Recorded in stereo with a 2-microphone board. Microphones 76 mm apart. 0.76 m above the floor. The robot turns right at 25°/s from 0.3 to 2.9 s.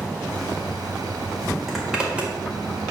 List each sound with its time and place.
1.7 s a zipper: centre (ahead or behind), 1.9 m; by 2.3 s 20° right (ahead or behind), 1.9 m